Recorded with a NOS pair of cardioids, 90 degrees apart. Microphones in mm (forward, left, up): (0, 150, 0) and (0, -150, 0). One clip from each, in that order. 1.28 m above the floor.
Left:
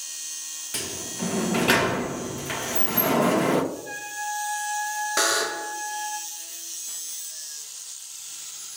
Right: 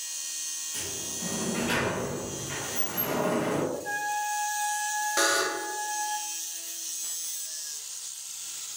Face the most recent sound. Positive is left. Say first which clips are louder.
# left 2 dB
turn(degrees=15)